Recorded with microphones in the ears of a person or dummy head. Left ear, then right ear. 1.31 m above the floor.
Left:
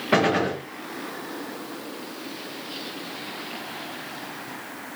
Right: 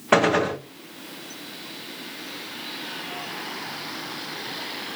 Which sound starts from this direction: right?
A gunshot, at 0.1 s.